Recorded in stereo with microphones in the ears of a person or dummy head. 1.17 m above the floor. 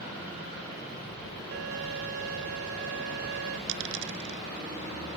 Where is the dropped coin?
70° right (ahead or behind).